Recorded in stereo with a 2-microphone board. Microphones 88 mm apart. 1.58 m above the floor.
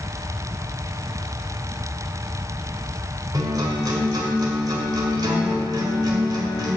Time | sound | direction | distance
3.3 | a guitar | 50° right (ahead or behind) | 1.8 m